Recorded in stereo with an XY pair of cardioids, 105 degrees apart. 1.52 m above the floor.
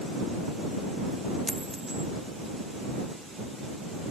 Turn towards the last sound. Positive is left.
turn(degrees=-5)